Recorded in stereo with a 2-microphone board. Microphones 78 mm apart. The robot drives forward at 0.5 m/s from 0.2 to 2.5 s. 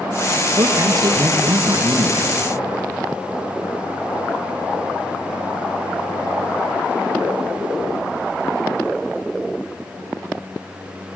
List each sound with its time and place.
0.6 s a man speaking: 55° right (ahead or behind), 3 m; by 2.5 s 60° right (ahead or behind), 3 m